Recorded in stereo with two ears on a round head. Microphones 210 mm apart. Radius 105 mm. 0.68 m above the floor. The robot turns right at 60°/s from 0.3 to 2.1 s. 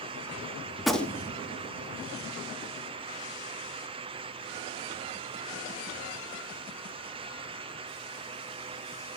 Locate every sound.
0.8 s a gunshot: 5° right, 1.4 m; by 1.4 s 30° left, 1.4 m